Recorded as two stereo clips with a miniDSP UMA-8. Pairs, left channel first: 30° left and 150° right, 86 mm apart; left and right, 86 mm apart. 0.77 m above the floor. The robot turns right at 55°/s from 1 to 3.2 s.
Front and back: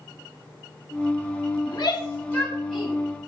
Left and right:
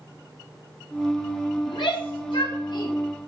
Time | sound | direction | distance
1.6 | a shout | 60° left | 4 m